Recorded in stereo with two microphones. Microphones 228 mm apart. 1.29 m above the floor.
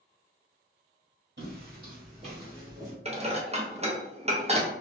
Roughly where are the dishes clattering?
Right.